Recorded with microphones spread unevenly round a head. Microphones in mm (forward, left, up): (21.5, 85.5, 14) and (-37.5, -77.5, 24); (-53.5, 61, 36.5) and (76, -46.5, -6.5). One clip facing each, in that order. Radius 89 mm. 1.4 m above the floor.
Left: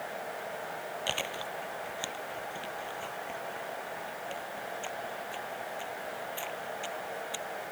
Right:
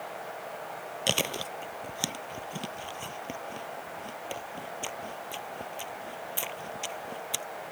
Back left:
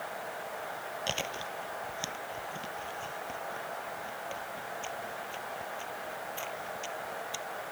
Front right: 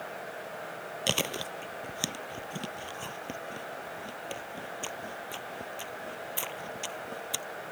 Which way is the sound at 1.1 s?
70° right.